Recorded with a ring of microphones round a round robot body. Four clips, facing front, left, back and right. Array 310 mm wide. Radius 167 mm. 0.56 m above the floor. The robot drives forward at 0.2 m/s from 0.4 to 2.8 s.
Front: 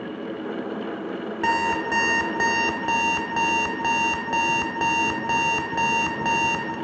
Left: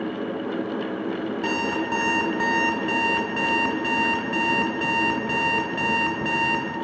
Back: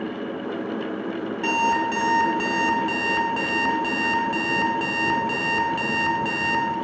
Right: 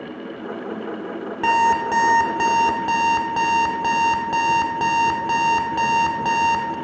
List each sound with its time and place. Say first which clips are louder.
1.4 s an alarm clock: right 11 dB, back 1 dB; 75° right, 1.4 m; by 6.8 s 85° right, 1.3 m